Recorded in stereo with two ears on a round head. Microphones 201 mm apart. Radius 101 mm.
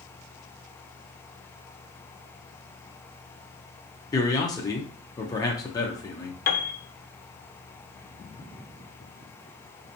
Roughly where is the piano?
Left.